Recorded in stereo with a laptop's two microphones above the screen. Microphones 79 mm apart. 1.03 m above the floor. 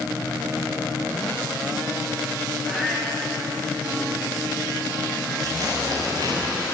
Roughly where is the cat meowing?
Centre.